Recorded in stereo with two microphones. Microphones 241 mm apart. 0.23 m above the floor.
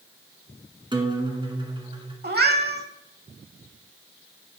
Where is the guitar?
20° right (ahead or behind), 1.4 m.